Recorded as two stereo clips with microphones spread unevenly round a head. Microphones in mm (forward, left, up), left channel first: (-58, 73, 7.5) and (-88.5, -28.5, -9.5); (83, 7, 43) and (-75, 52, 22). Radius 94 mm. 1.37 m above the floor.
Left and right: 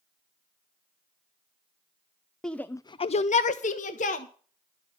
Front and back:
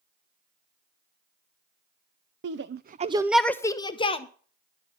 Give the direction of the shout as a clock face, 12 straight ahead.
7 o'clock.